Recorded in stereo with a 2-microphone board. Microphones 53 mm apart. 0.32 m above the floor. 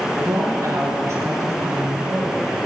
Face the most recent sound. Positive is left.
turn(degrees=-60)  # may be behind; listen again after turning